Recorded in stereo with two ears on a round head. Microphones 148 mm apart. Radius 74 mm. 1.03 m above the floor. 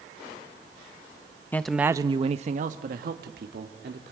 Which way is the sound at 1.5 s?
15° left (ahead or behind).